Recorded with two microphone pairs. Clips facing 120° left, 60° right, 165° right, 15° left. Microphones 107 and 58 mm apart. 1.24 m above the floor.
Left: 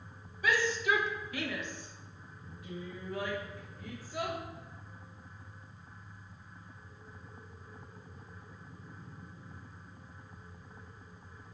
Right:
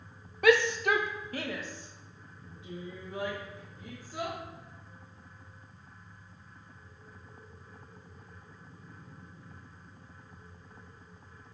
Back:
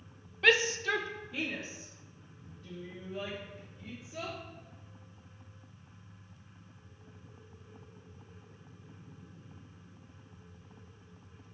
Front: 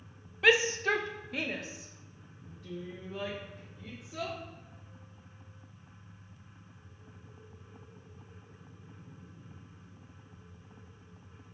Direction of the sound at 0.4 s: 70° right.